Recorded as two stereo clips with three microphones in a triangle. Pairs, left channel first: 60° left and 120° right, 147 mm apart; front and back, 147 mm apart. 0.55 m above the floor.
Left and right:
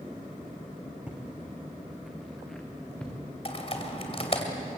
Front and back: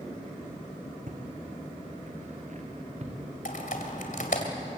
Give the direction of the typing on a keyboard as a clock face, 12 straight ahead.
12 o'clock.